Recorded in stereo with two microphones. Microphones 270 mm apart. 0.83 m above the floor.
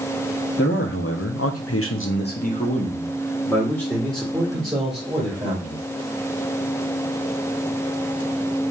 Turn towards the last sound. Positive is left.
turn(degrees=-5)  # may be behind; listen again after turning